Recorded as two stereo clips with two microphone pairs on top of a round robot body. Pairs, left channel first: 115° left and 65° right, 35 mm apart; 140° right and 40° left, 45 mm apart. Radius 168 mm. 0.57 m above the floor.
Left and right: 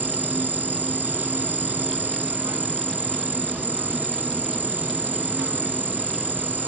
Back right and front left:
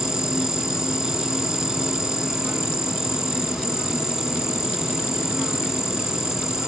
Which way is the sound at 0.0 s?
40° right.